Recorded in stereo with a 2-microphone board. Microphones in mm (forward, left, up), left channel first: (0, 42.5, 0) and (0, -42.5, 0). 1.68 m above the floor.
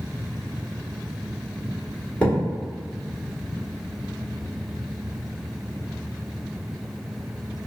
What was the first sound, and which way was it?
A thud, 15° left (ahead or behind).